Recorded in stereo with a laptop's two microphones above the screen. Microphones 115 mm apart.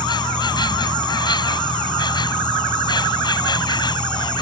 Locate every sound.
0.0 s an insect: 40° left (ahead or behind)